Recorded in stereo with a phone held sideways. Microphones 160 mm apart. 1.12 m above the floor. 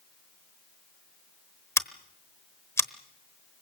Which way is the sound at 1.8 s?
15° left (ahead or behind).